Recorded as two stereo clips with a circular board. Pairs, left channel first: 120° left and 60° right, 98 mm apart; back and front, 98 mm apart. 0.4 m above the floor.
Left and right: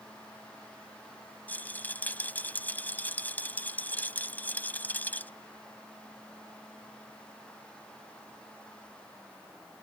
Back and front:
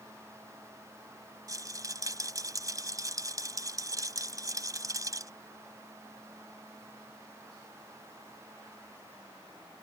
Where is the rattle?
50° left.